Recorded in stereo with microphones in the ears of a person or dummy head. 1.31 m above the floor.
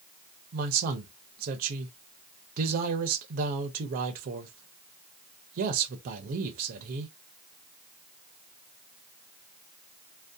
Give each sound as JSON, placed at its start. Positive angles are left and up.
{"t": 0.5, "sound": "a man speaking", "side_deg": -50, "distance_m": 0.5}